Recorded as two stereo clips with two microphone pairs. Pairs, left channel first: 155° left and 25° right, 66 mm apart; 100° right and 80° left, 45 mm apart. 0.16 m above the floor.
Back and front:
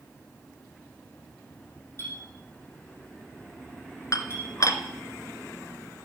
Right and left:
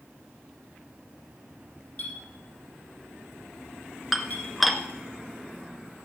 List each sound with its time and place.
2.0 s a clink: 155° right, 5 m
4.1 s dishes clattering: 170° left, 1.1 m